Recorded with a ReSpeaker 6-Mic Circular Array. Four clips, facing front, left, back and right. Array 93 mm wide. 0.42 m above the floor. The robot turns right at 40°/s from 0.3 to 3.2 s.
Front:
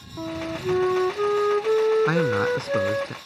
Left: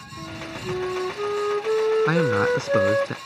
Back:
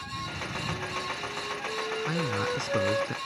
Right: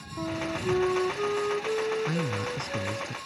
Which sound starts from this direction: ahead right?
A flute, at 0.2 s.